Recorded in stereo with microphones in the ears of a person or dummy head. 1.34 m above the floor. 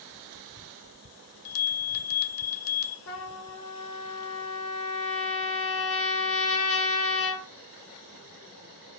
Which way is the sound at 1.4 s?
85° left.